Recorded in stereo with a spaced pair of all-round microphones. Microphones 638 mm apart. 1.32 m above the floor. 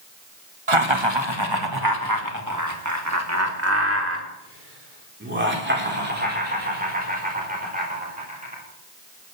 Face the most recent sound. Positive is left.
turn(degrees=-10)  # may be behind; listen again after turning